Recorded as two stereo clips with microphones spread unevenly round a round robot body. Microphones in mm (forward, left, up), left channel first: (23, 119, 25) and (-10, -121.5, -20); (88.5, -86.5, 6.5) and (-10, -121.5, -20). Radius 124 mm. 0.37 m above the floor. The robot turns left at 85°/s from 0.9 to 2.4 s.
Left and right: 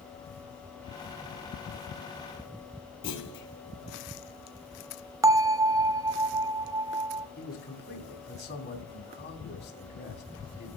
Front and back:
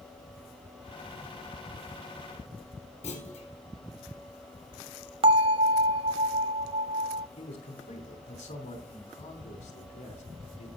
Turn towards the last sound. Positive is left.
turn(degrees=30)